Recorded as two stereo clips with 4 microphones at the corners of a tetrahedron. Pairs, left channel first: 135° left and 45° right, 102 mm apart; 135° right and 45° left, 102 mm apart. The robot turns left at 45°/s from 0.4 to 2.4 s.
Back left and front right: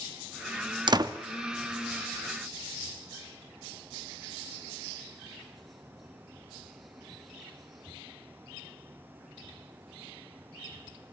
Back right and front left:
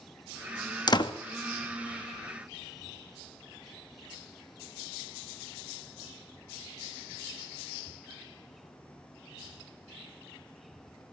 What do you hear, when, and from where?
0.9 s a door slam: 90° right, 1.0 m; by 1.1 s 100° right, 1.0 m